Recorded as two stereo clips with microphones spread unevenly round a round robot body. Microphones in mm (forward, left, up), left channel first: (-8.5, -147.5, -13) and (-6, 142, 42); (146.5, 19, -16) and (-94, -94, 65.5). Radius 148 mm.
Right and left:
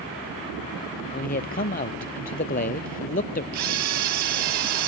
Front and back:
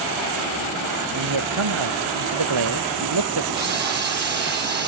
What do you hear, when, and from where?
1.1 s a man speaking: 155° right
3.5 s a camera shutter: 125° left